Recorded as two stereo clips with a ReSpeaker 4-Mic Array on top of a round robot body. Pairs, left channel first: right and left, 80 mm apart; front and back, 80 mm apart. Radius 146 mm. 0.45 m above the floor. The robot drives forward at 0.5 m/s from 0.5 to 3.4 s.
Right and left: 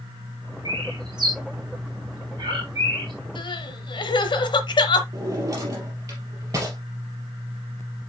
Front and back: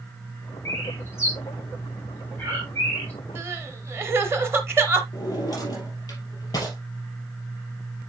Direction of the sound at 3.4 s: 115° right.